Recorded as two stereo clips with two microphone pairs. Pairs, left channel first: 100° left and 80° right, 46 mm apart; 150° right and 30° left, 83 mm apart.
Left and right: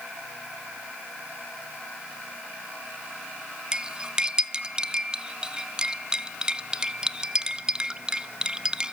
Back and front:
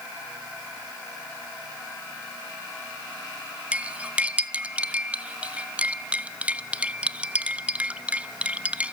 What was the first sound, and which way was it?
Cutlery clinking, 25° right.